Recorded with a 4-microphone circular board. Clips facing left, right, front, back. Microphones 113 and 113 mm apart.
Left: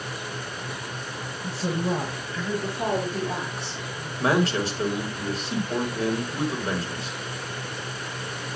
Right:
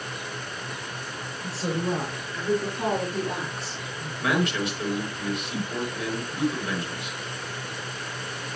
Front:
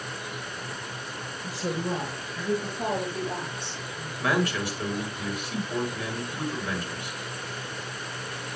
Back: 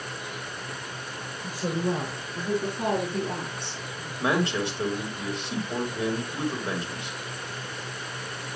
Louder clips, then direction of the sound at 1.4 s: Left 1 dB, back 2 dB; 145° right.